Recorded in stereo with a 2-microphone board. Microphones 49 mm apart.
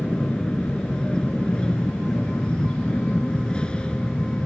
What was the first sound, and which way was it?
An aircraft, 20° left (ahead or behind).